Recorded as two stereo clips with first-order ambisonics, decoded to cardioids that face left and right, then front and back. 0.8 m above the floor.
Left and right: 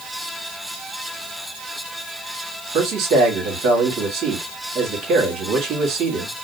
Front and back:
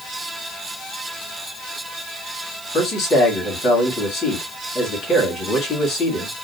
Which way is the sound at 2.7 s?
55° right.